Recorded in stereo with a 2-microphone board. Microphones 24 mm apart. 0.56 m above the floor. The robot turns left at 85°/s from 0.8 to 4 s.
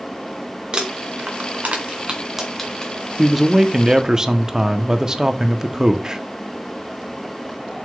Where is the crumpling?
35° right (ahead or behind), 2 m; by 2.9 s 35° left (ahead or behind), 2 m.